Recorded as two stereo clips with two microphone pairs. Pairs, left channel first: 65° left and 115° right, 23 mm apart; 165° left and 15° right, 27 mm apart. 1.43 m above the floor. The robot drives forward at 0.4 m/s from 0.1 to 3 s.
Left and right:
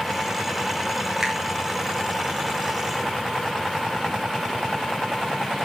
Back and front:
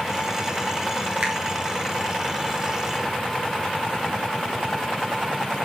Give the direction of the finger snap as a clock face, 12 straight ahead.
2 o'clock.